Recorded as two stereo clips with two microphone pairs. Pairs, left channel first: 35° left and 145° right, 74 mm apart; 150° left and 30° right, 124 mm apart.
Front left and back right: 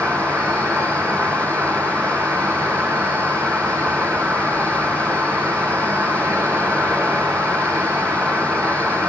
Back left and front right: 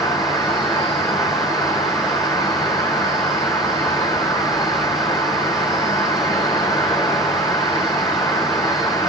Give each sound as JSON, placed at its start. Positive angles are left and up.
{"t": 0.0, "sound": "an insect", "azimuth_deg": -170, "distance_m": 1.3}